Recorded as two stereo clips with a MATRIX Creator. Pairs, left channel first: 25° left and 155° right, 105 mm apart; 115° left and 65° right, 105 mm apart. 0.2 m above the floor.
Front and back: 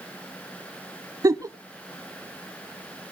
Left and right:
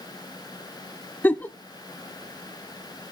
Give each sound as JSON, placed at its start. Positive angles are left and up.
{"t": 1.2, "sound": "a giggle", "azimuth_deg": 175, "distance_m": 0.5}